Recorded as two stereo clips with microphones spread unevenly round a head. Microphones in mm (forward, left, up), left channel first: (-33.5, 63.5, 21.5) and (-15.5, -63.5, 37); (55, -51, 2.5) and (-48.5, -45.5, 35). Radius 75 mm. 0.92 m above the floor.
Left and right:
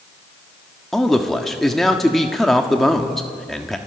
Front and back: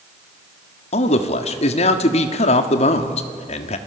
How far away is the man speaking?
About 1.5 m.